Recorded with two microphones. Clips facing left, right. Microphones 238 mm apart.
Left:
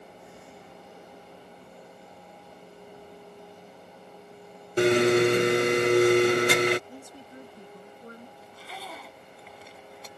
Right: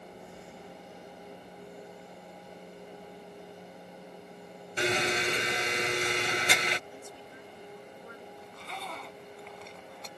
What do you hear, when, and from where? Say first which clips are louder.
4.8 s a blender: left 12 dB; 60° left (ahead or behind)
6.9 s a woman speaking: left 2 dB; 40° left (ahead or behind)
8.4 s a zipper: even; 5° left (ahead or behind)